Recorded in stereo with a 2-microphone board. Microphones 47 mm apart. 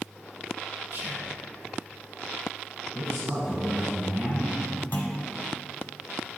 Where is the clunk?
45° left (ahead or behind), 1.1 m.